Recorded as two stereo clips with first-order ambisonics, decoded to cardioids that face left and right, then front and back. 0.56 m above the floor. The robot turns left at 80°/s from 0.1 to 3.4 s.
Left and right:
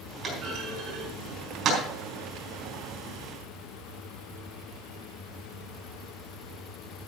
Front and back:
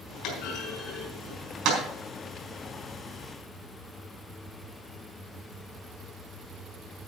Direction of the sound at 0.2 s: 25° right.